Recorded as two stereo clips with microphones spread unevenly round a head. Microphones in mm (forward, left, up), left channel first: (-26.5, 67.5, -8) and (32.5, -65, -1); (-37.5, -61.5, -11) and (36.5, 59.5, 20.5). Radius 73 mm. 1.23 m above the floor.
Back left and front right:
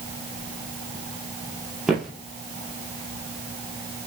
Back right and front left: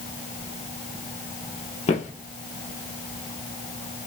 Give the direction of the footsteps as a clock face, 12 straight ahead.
5 o'clock.